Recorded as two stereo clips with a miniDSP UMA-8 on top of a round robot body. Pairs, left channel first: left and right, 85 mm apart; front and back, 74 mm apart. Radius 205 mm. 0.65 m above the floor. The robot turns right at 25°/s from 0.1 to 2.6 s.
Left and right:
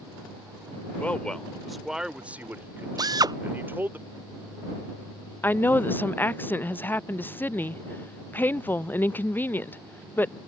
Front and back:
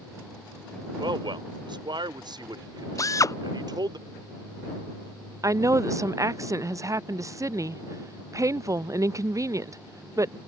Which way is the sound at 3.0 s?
45° right.